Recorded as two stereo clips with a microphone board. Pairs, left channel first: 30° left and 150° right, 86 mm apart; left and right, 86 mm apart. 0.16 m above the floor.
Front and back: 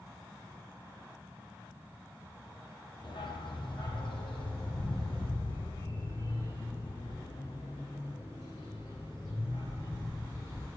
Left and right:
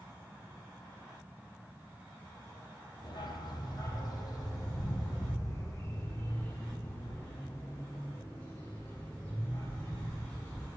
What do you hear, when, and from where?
3.0 s a dog barking: 60° left, 2.5 m; by 10.7 s 30° left, 8.5 m